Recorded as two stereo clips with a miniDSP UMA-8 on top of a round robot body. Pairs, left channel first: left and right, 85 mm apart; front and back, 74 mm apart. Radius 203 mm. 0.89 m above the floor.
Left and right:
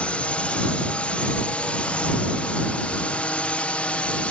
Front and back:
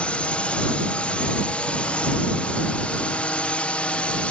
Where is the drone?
40° left.